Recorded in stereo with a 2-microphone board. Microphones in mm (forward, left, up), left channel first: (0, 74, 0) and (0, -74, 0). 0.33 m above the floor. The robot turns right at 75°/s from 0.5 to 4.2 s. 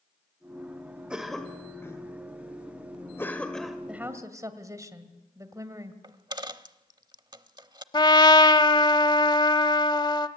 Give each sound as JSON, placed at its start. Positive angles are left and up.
{"t": 1.1, "sound": "a cough", "side_deg": -5, "distance_m": 1.4}
{"t": 3.9, "sound": "a woman speaking", "side_deg": -5, "distance_m": 2.0}
{"t": 6.0, "sound": "a dropped coin", "side_deg": -30, "distance_m": 0.8}
{"t": 7.9, "sound": "a trumpet", "side_deg": 30, "distance_m": 1.0}